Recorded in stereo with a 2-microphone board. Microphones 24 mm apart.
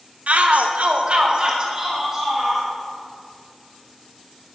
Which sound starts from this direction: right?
A shout, at 0.3 s.